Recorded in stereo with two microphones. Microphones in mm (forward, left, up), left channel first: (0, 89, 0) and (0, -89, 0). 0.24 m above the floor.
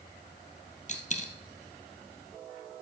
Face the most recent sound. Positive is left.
turn(degrees=45)  # may be behind; listen again after turning